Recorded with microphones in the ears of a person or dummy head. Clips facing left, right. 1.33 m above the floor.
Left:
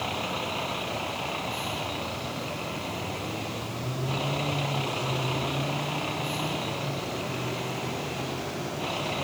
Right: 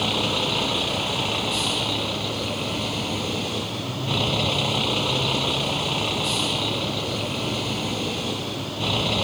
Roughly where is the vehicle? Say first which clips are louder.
Right 7 dB; right.